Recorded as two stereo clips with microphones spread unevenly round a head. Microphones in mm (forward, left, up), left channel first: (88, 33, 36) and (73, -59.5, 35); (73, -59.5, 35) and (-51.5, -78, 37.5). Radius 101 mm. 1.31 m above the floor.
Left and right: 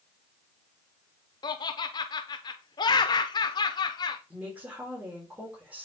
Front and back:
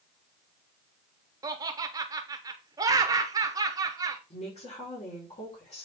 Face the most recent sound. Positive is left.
turn(degrees=-25)